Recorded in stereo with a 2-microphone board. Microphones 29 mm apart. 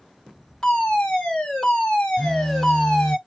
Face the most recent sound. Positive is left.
turn(degrees=10)  # may be behind; listen again after turning